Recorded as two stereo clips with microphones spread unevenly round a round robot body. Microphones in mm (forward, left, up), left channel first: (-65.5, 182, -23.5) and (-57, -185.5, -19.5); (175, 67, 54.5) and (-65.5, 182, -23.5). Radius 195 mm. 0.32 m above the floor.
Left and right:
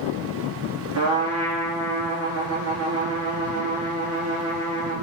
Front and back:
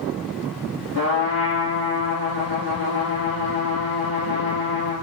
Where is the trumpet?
140° right, 3 m.